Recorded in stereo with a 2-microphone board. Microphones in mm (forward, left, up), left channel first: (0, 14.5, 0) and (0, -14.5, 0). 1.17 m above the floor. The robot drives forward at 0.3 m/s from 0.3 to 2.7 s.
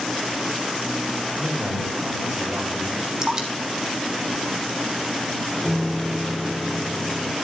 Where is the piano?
10° left (ahead or behind), 5 m.